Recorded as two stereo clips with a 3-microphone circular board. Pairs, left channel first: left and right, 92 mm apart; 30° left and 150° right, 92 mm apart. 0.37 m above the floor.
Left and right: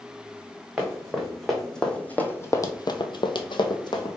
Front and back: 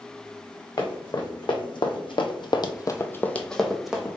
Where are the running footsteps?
5° right, 1.5 m; by 4.2 s 130° left, 1.0 m.